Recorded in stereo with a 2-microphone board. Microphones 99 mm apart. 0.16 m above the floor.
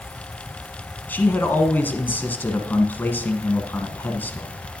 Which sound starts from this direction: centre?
A man speaking, at 1.1 s.